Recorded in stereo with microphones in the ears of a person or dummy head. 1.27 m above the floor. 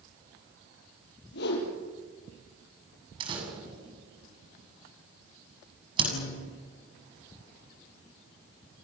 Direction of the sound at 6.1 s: 90° left.